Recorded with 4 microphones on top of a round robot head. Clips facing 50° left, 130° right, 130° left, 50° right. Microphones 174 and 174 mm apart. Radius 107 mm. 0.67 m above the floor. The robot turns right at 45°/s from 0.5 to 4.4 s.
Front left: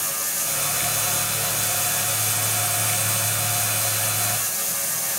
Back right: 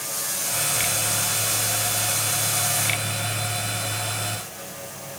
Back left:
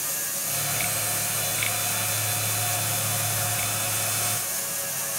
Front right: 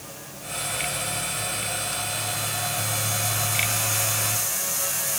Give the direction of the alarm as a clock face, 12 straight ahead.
I don't hear an alarm.